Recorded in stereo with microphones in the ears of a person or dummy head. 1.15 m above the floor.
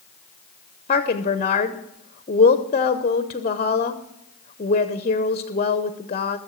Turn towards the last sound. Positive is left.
turn(degrees=30)  # may be behind; listen again after turning